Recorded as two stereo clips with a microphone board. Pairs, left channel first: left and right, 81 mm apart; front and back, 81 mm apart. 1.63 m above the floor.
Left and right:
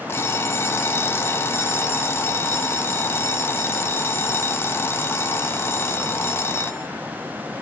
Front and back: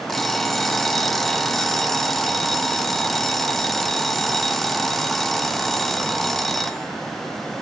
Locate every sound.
0.1 s an alarm clock: 80° left, 0.9 m